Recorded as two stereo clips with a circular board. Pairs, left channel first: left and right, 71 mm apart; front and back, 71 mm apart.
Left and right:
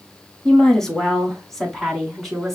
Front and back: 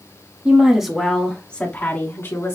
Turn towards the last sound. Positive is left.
turn(degrees=0)